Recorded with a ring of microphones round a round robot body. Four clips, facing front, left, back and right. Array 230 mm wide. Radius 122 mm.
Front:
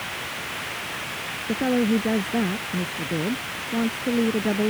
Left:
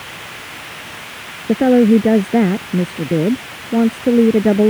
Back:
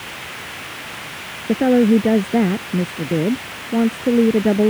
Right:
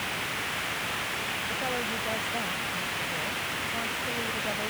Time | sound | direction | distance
1.5 | a woman speaking | 110° left | ?